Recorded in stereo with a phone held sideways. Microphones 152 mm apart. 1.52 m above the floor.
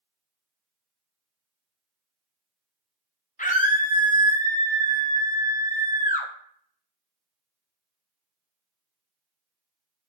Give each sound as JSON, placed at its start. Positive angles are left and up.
{"t": 3.4, "sound": "a scream", "side_deg": 60, "distance_m": 0.6}